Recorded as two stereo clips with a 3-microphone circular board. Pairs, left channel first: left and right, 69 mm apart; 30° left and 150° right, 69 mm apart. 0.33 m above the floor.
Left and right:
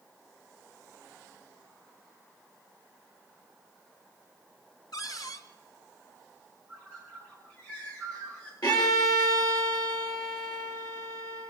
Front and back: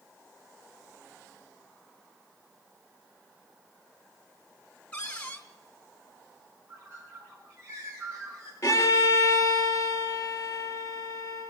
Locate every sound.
4.9 s a cupboard door: 100° left, 2.5 m
6.7 s a bird: 160° left, 9.5 m
8.6 s a violin: 75° left, 6.5 m